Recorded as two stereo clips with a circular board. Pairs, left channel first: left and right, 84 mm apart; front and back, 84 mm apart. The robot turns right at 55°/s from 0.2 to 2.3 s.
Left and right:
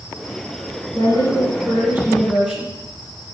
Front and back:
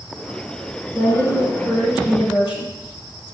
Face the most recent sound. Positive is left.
turn(degrees=-15)